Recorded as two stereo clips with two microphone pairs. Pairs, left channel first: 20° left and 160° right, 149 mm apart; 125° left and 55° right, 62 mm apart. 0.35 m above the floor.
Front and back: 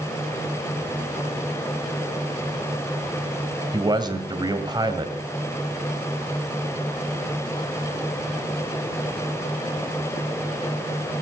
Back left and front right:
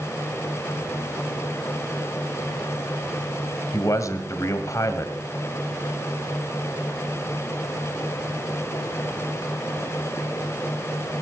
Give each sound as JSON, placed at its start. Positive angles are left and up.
{"t": 3.7, "sound": "a man speaking", "azimuth_deg": 145, "distance_m": 1.7}